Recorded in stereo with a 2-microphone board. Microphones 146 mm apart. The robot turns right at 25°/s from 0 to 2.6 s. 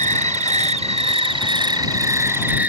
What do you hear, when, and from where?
0.0 s an insect: 80° right; by 2.7 s 15° right